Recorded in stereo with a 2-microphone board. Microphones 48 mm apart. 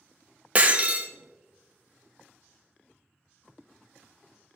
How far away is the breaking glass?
About 0.7 m.